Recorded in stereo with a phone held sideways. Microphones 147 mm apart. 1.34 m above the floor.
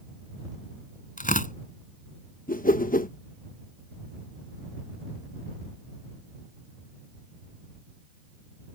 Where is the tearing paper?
65° left (ahead or behind).